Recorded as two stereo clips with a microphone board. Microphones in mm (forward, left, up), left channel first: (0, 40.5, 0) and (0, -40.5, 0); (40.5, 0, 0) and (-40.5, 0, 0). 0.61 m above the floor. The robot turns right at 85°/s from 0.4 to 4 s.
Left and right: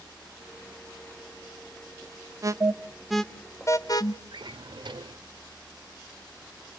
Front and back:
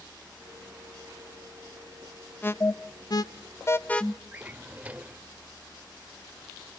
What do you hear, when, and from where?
2.4 s an alarm: 60° right, 0.6 m; by 4.2 s 75° left, 0.6 m
4.3 s a drawer: 110° right, 0.7 m